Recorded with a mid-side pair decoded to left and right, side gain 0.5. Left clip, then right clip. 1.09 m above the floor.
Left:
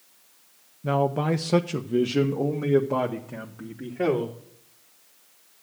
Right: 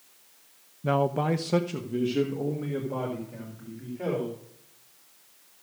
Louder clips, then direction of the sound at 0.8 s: Left 1 dB; 10° right.